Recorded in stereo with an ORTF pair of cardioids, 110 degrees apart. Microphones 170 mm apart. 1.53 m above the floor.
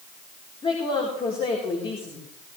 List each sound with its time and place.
0.6 s a woman speaking: 30° left, 4 m